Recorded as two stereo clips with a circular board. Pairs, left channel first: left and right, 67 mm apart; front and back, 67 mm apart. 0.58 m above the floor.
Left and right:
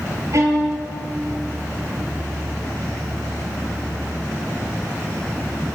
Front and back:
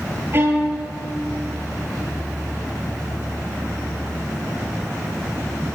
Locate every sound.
0.3 s a violin: 125° right, 8.5 m